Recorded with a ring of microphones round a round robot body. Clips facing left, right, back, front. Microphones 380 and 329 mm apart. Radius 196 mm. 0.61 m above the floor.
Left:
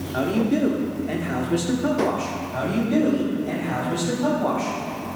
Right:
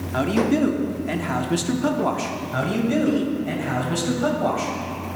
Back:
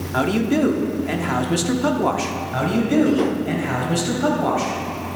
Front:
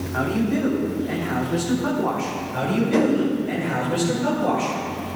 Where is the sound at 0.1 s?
150° right, 1.3 m.